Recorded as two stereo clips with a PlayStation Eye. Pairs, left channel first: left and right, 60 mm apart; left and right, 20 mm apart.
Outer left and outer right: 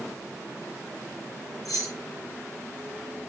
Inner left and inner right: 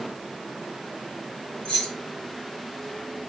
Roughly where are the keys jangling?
Left.